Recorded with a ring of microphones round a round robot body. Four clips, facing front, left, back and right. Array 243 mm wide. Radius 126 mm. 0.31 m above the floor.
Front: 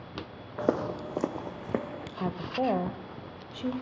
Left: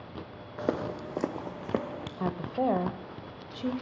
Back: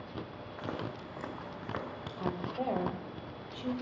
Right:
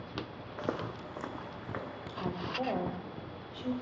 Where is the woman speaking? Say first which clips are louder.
Left 6 dB, front 5 dB; 50° left, 1.4 m.